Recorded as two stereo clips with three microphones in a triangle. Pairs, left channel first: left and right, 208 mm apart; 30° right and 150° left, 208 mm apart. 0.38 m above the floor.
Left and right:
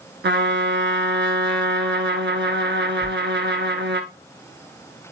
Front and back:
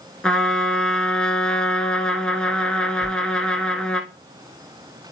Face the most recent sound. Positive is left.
turn(degrees=-85)